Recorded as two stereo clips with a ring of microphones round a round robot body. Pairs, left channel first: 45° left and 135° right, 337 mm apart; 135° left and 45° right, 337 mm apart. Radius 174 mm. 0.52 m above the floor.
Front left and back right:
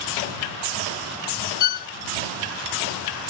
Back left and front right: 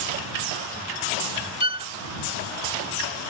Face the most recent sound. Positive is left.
turn(degrees=30)